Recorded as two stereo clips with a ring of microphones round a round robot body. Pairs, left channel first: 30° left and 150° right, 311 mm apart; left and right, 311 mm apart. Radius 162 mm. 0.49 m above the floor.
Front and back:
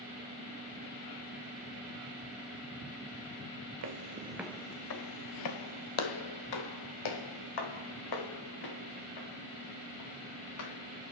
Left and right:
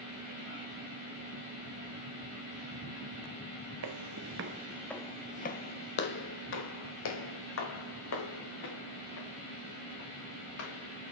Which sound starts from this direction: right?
Footsteps, at 3.8 s.